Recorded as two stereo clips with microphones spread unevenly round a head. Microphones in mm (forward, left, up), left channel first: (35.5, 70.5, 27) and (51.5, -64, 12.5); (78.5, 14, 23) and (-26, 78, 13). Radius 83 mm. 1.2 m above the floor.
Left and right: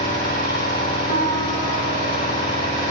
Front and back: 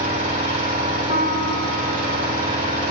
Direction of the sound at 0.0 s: 135° left.